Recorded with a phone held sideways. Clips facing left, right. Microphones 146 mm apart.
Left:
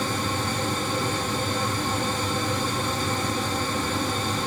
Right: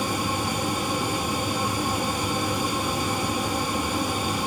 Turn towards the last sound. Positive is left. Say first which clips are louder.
# right 1 dB
turn(degrees=-10)  # may be behind; listen again after turning